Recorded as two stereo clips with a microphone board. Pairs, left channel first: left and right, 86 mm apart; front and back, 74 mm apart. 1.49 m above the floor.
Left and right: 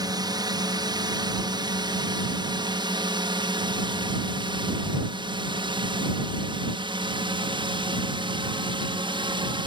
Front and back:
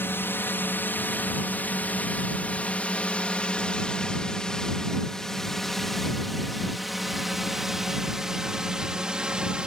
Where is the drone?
60° right; by 9.7 s 105° right.